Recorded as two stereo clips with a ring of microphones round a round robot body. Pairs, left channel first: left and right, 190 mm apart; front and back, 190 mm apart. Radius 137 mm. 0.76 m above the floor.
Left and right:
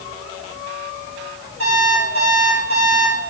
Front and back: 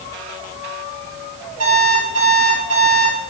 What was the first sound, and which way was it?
An alarm clock, 145° right.